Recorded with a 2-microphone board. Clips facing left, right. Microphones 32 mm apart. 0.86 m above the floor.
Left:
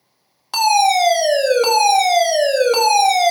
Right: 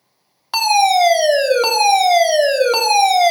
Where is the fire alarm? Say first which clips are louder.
Right 1 dB; 20° right (ahead or behind), 1.3 m.